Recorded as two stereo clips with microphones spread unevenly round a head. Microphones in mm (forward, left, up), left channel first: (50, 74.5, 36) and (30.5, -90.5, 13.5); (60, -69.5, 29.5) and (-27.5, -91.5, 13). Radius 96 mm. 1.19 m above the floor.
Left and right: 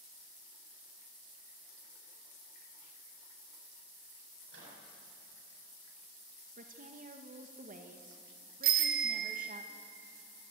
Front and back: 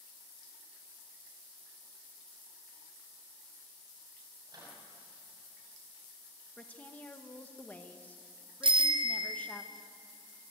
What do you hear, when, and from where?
4.5 s a microwave: 120° right, 7 m
6.6 s a woman speaking: 60° right, 1.6 m
8.6 s a bicycle bell: 145° right, 2 m